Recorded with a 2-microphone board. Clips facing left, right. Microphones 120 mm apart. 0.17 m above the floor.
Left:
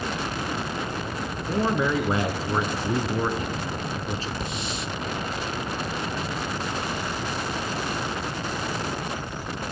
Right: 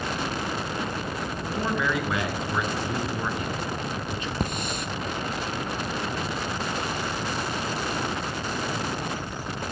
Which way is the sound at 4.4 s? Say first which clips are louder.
Right 2 dB; 50° right (ahead or behind).